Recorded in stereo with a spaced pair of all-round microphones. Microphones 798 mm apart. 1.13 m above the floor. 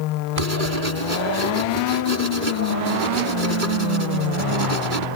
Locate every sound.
0.4 s writing: 80° right